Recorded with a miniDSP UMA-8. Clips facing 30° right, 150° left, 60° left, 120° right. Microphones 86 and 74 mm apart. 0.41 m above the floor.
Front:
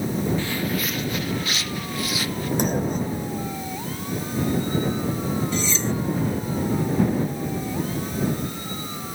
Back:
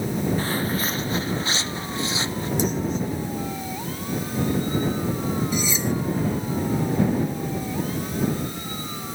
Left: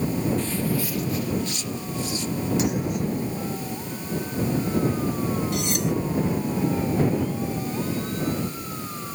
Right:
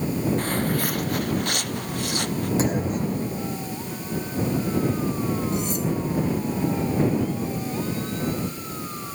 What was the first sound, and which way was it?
Footsteps, 155° right.